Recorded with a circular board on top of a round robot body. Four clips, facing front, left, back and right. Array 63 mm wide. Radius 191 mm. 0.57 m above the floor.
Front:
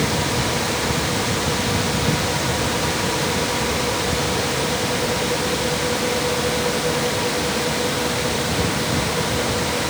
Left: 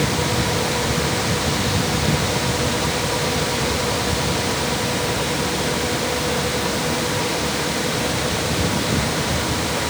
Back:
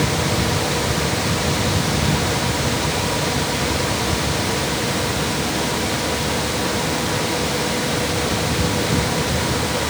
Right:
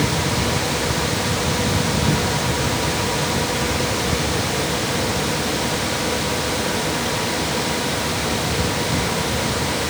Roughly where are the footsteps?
I don't hear footsteps.